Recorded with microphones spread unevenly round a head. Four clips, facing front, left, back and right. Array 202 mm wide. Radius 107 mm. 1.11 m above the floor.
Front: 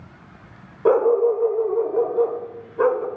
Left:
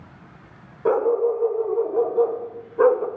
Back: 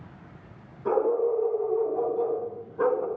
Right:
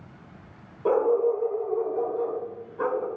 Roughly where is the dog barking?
Ahead.